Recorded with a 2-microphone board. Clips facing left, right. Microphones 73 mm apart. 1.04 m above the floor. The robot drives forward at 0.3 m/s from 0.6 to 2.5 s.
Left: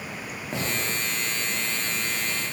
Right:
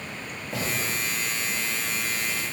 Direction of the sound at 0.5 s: 25° left (ahead or behind).